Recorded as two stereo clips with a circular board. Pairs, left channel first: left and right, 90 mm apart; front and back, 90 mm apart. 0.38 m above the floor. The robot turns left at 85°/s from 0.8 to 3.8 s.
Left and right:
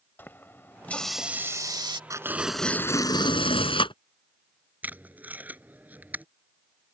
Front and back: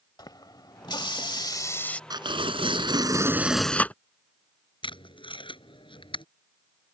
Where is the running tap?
25° left; by 2.0 s 75° right.